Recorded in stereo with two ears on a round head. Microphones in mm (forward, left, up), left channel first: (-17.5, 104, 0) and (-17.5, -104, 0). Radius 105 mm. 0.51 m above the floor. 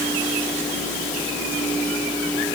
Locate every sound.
Only background noise.